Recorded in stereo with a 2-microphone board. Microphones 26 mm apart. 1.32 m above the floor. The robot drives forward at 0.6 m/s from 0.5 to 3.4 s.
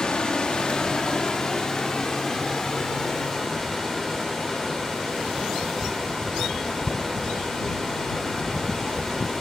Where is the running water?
35° left (ahead or behind), 1.5 m; by 9.4 s 15° left (ahead or behind), 3 m.